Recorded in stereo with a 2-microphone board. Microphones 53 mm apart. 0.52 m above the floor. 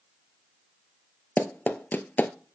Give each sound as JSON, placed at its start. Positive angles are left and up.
{"t": 1.4, "sound": "running footsteps", "side_deg": 35, "distance_m": 0.6}